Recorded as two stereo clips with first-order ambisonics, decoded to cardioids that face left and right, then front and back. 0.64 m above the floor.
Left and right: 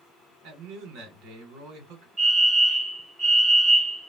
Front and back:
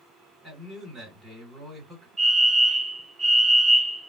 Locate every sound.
0.4 s a man speaking: 95° right, 2.5 m
2.2 s a fire alarm: 115° right, 1.6 m